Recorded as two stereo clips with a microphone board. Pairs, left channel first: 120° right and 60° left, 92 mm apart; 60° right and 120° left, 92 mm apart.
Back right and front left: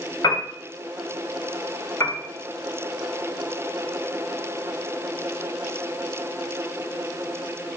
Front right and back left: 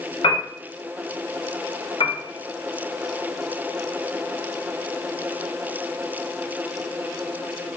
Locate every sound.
0.2 s a piano: 80° right, 2.5 m
2.0 s a piano: 65° right, 1.6 m